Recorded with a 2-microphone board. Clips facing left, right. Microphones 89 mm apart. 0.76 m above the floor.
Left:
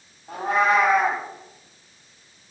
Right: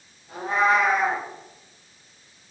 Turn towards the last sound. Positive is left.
turn(degrees=70)  # may be behind; listen again after turning